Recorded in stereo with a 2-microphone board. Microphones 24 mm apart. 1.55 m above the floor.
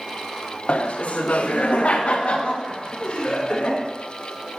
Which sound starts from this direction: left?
Laughter, at 0.7 s.